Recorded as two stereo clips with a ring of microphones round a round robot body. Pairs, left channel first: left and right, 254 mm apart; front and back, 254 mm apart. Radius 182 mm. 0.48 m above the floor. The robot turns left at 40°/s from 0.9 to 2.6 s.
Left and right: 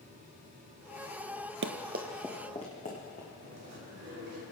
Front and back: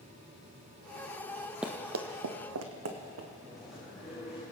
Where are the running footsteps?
95° right, 0.6 m; by 3.3 s 160° left, 2.5 m.